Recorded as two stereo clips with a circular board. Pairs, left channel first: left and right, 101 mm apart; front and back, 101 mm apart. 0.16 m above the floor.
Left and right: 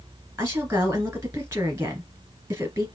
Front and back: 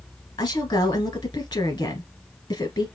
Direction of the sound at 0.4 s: 30° right.